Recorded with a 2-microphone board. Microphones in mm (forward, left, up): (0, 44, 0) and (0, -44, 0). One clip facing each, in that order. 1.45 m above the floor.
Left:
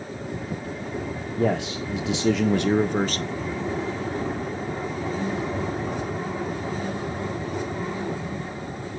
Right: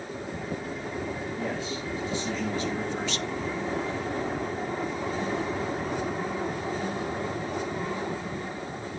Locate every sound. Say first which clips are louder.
1.4 s a man speaking: left 7 dB; 70° left (ahead or behind), 0.9 m; by 3.5 s 30° left (ahead or behind), 0.9 m